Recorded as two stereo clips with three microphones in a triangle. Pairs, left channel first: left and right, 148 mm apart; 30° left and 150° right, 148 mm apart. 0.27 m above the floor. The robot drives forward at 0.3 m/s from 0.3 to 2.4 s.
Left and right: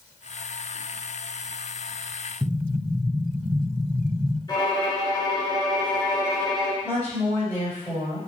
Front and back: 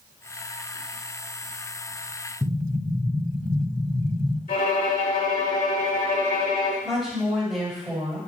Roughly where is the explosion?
Behind right.